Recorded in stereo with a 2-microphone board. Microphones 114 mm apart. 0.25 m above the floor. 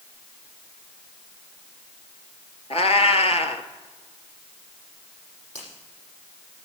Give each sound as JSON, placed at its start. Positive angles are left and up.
{"t": 2.7, "sound": "a cat meowing", "side_deg": 65, "distance_m": 1.1}
{"t": 5.5, "sound": "a finger snap", "side_deg": 75, "distance_m": 7.0}